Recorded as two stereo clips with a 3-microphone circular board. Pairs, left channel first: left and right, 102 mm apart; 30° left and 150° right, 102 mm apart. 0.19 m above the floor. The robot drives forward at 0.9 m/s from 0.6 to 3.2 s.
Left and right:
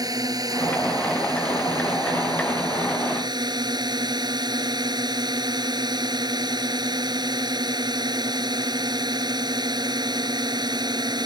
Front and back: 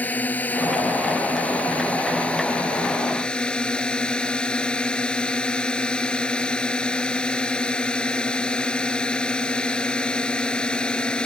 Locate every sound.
0.0 s a drone: 40° right; by 11.3 s 50° right